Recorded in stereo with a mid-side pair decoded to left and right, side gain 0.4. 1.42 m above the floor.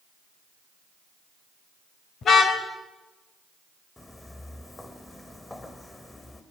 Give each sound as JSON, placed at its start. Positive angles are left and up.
{"t": 2.2, "sound": "a car horn", "azimuth_deg": 65, "distance_m": 3.0}
{"t": 4.0, "sound": "footsteps", "azimuth_deg": 20, "distance_m": 5.0}